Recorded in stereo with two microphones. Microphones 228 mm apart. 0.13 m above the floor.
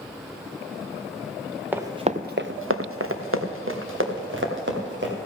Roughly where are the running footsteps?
Centre.